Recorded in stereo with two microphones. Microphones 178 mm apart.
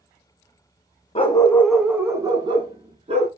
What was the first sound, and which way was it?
A dog barking, 35° left (ahead or behind).